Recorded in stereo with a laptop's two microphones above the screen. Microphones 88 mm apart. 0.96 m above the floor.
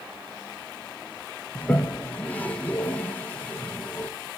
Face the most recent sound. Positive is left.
turn(degrees=20)  # may be behind; listen again after turning